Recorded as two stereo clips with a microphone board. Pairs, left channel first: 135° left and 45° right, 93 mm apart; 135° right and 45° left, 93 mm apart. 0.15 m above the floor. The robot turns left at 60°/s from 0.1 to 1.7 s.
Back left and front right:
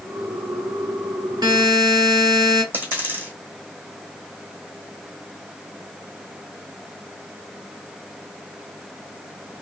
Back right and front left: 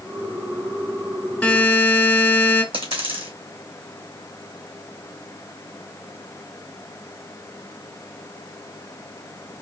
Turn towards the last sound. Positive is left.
turn(degrees=25)